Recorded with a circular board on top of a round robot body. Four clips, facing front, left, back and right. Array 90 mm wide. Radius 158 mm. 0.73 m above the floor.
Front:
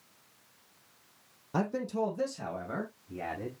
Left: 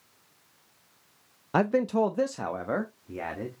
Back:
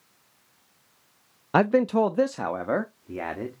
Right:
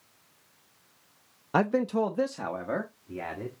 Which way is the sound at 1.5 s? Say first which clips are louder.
Left 1 dB, back 11 dB; straight behind.